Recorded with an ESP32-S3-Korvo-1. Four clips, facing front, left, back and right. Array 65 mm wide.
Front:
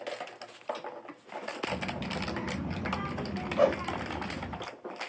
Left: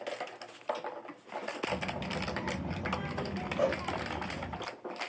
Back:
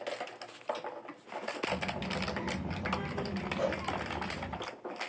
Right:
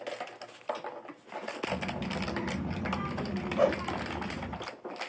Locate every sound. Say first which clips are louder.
1.7 s a child speaking: right 1 dB, front 1 dB; 40° right, 3.5 m
3.6 s a whoosh: right 4 dB, front 9 dB; 35° right, 0.7 m